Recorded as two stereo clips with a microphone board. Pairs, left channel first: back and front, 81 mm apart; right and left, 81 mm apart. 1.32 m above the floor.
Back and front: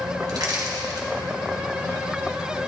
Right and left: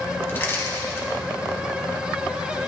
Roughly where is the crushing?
Ahead right.